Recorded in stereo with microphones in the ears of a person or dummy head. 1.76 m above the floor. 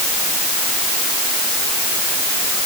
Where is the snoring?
I don't hear snoring.